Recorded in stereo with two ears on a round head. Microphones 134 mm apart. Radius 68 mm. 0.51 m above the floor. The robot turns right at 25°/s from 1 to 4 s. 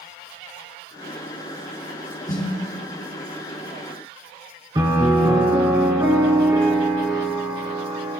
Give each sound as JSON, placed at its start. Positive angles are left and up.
{"t": 2.3, "sound": "a snare drum", "side_deg": 25, "distance_m": 2.5}
{"t": 4.8, "sound": "a piano", "side_deg": -30, "distance_m": 3.0}